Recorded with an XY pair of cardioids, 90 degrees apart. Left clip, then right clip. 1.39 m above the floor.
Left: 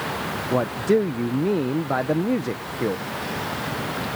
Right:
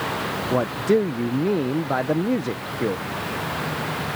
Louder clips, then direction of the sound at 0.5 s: Even; 5° right.